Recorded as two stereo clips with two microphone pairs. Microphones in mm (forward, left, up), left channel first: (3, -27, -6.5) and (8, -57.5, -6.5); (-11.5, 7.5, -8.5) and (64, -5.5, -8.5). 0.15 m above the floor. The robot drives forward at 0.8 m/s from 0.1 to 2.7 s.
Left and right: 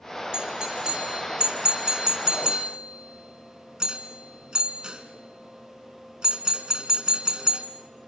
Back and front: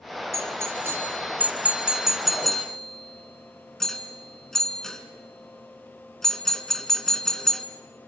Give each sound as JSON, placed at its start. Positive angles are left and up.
{"t": 0.3, "sound": "a doorbell", "azimuth_deg": -35, "distance_m": 2.5}